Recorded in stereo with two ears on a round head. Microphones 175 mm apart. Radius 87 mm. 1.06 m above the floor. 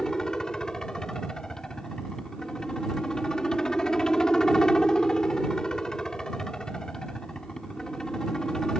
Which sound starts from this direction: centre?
A helicopter, at 0.0 s.